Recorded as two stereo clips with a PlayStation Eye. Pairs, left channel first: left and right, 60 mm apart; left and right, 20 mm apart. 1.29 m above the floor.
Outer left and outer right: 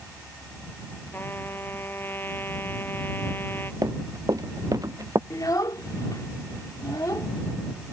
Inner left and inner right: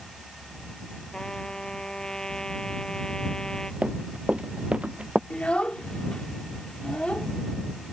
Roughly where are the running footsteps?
Right.